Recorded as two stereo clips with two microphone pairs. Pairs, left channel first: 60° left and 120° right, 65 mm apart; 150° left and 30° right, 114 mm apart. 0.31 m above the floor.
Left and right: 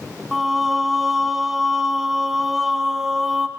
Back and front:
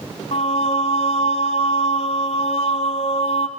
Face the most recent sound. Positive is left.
turn(degrees=155)